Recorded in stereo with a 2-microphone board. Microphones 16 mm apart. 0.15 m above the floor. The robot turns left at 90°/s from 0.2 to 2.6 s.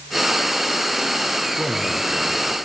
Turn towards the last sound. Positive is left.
turn(degrees=140)